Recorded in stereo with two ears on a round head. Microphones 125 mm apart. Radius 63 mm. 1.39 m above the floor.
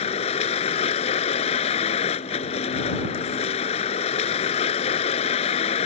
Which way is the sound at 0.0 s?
50° left (ahead or behind).